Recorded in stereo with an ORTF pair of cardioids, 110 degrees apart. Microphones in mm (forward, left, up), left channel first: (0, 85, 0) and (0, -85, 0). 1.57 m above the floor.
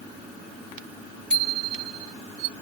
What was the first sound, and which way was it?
A bicycle bell, 5° left.